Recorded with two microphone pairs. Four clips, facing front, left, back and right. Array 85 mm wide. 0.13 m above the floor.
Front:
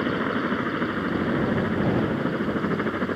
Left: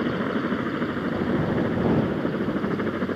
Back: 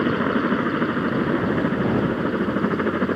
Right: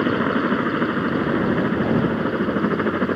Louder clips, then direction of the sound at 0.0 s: Right 5 dB, back 4 dB; 130° right.